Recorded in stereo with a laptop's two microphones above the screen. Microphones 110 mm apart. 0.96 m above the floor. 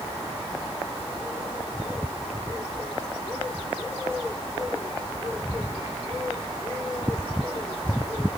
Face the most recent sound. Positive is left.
No sound to turn to.